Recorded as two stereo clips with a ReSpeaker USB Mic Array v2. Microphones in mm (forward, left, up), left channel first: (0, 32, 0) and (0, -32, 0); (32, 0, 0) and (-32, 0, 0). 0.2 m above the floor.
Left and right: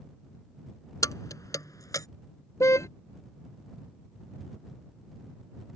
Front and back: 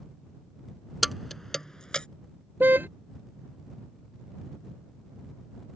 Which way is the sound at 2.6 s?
125° left.